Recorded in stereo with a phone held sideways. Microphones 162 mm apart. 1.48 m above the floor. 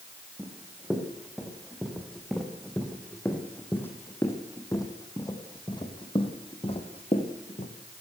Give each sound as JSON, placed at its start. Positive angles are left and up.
{"t": 0.4, "sound": "running footsteps", "side_deg": -5, "distance_m": 4.5}